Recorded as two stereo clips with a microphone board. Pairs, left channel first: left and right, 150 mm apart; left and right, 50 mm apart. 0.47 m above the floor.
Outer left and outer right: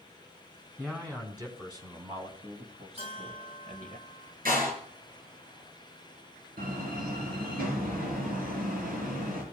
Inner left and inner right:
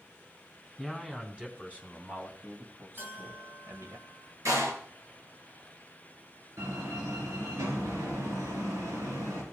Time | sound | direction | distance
0.8 | a man speaking | 15° right (ahead or behind) | 3.5 m
3.0 | a bell | 40° right (ahead or behind) | 3.5 m
4.5 | a door slam | 75° right (ahead or behind) | 5 m
6.6 | a door slam | 80° right | 6 m